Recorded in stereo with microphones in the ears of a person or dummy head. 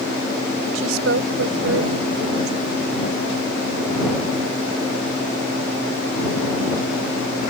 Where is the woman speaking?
85° right.